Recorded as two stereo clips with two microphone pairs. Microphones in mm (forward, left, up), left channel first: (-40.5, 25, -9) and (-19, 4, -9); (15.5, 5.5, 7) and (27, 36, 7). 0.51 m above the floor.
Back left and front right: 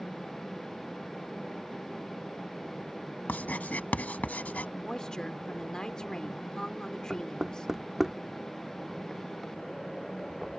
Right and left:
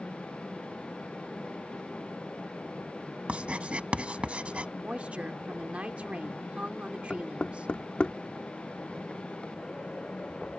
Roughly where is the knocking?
Behind right.